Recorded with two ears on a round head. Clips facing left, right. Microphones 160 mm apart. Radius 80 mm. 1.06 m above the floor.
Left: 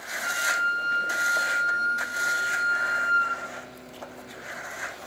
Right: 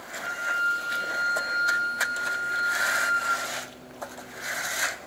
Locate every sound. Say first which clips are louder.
0.2 s a flute: left 2 dB; 5° left (ahead or behind), 10 m